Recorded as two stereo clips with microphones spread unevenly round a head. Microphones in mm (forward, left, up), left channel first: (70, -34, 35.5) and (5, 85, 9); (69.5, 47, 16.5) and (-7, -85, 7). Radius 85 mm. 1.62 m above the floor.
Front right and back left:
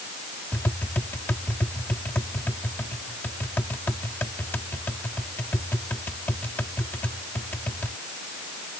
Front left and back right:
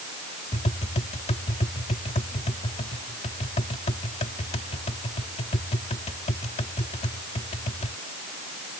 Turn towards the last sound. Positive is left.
turn(degrees=15)